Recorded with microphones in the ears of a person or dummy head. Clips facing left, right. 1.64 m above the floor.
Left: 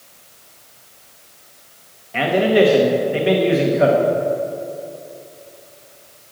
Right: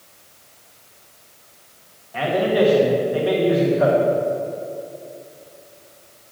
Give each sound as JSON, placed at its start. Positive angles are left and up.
{"t": 2.1, "sound": "a man speaking", "side_deg": 30, "distance_m": 1.3}